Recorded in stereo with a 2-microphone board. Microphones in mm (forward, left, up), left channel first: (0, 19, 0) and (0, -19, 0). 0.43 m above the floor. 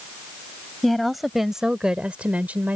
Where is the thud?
No thud in this recording.